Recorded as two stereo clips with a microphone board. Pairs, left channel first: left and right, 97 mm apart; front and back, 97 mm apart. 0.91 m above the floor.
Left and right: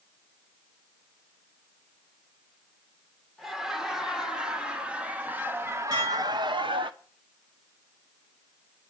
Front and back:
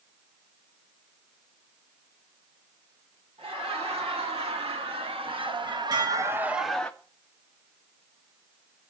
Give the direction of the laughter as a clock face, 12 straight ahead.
6 o'clock.